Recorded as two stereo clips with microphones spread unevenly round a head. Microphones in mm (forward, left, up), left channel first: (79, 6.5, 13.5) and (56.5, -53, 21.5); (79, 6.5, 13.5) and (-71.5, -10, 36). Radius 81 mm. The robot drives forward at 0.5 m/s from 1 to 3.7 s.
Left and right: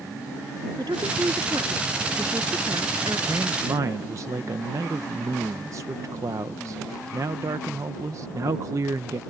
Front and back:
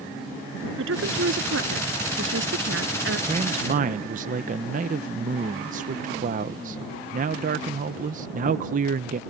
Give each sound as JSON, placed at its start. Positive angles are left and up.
{"t": 0.8, "sound": "a woman speaking", "azimuth_deg": -175}
{"t": 3.3, "sound": "a man speaking", "azimuth_deg": -130}